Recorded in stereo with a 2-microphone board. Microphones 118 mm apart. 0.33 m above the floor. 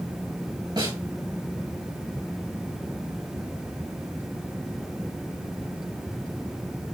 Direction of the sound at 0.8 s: 40° right (ahead or behind).